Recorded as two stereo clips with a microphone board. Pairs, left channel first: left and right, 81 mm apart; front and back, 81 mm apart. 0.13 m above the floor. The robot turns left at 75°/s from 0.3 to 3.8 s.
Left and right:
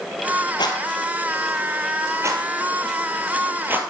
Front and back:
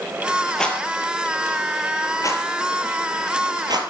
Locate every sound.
0.6 s a rattle: 85° left, 1.2 m; by 3.8 s 160° right, 1.2 m